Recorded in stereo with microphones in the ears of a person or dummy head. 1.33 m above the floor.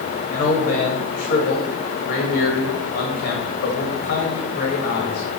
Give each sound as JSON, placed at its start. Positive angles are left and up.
{"t": 0.3, "sound": "a man speaking", "side_deg": 50, "distance_m": 1.7}